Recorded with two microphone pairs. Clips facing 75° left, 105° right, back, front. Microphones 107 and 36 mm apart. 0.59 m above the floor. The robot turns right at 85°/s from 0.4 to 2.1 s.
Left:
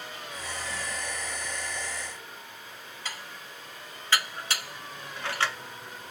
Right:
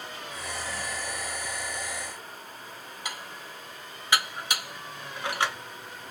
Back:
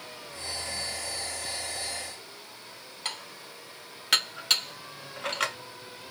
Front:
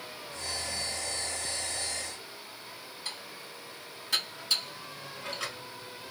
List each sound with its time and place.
3.0 s dishes clattering: straight behind, 0.5 m